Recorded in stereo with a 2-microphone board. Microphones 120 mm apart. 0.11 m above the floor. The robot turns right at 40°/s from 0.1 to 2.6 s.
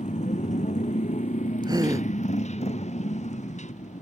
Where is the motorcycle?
80° left; by 4.0 s 75° left (ahead or behind).